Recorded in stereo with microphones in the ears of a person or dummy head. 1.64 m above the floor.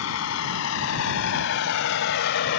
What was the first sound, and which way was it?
A vehicle, 90° left.